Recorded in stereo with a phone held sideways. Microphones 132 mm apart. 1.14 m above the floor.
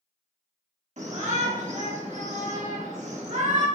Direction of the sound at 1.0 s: 65° right (ahead or behind).